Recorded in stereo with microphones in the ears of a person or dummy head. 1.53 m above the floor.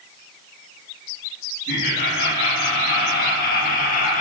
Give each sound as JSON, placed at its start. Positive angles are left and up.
{"t": 1.7, "sound": "laughter", "side_deg": 60, "distance_m": 3.0}